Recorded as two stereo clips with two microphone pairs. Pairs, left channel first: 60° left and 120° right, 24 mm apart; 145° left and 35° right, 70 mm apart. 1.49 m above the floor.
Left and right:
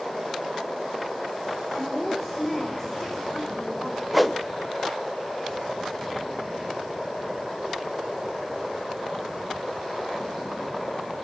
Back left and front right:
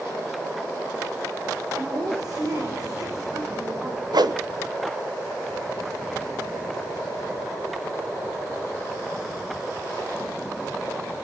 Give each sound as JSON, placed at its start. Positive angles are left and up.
{"t": 1.7, "sound": "a woman speaking", "azimuth_deg": -15, "distance_m": 6.0}
{"t": 4.1, "sound": "a whoosh", "azimuth_deg": -25, "distance_m": 1.0}